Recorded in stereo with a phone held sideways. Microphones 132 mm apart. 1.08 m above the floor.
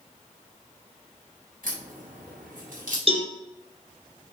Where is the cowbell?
45° right (ahead or behind), 2.5 m.